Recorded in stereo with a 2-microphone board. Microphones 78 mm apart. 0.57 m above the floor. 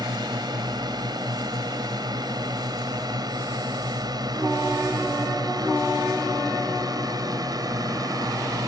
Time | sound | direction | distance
0.0 | a drone | 60° right (ahead or behind) | ?